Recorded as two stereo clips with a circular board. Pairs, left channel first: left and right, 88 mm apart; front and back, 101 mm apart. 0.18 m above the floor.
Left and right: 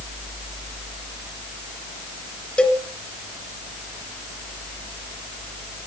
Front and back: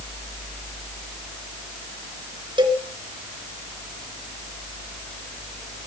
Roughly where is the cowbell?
Behind.